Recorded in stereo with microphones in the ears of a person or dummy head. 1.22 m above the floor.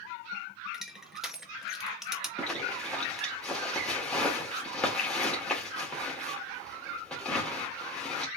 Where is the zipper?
10° left (ahead or behind), 2.0 m.